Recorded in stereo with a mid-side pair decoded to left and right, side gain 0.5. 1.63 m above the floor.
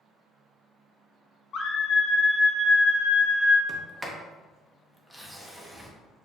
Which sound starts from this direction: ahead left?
A scream, at 1.5 s.